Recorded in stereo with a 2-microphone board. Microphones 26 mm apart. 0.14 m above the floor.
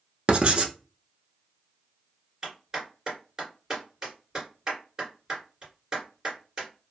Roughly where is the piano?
No piano in this recording.